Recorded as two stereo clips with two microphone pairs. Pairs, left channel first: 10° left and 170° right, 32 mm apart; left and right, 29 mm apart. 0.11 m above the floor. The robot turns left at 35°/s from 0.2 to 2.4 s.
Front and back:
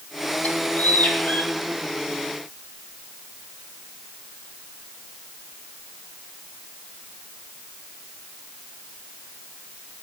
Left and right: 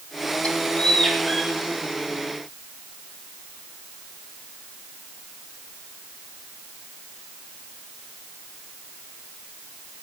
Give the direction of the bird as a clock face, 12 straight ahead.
11 o'clock.